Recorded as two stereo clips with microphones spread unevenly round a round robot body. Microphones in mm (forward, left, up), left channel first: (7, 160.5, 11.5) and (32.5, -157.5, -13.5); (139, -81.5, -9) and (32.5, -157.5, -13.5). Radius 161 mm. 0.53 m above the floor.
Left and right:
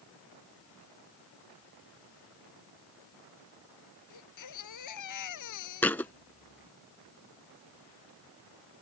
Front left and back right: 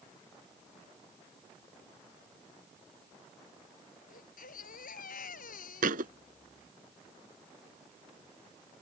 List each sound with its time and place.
4.1 s a baby crying: 65° left
5.8 s a thud: straight behind